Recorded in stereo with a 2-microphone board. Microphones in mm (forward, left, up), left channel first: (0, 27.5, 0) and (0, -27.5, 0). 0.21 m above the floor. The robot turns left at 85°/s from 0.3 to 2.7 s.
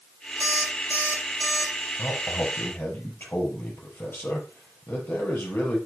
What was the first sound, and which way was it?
An alarm clock, 85° right.